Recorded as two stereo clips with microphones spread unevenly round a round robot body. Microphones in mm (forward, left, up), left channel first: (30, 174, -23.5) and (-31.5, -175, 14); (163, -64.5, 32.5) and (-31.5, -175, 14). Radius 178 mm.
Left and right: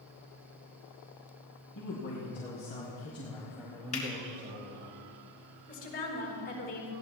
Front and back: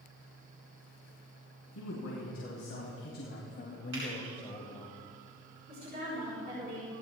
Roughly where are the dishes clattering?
I don't hear dishes clattering.